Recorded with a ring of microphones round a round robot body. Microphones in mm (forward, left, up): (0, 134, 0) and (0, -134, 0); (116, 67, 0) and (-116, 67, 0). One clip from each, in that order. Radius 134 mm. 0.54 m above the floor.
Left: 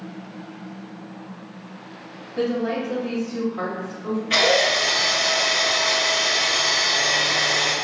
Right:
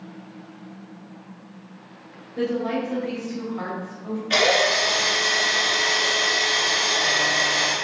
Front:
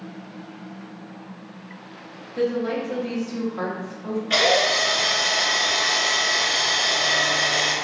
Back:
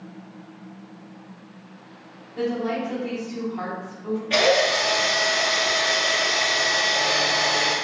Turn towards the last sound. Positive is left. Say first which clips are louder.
# left 1 dB, even
turn(degrees=-35)